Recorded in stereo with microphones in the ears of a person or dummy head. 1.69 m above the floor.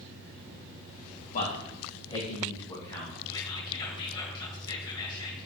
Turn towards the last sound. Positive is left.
turn(degrees=20)  # may be behind; listen again after turning